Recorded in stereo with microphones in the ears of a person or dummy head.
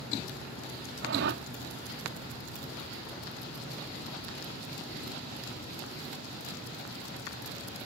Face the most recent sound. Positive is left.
turn(degrees=-65)  # may be behind; listen again after turning